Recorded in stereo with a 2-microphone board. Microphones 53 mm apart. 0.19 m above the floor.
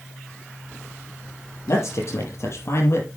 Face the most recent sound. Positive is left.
turn(degrees=50)  # may be behind; listen again after turning